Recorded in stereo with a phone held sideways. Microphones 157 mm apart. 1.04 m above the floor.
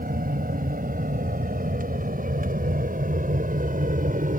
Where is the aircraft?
75° right (ahead or behind); by 4.4 s 65° right (ahead or behind).